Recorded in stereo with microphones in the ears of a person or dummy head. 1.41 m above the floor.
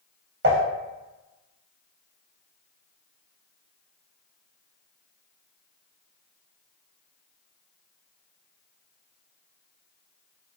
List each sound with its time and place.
0.4 s dishes clattering: 60° right (ahead or behind), 1.1 m